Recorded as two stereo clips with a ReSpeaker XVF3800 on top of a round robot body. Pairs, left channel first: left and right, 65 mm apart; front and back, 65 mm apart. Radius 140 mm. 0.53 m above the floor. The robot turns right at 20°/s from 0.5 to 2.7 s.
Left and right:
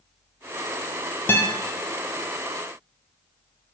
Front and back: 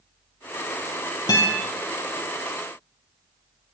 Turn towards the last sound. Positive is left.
turn(degrees=60)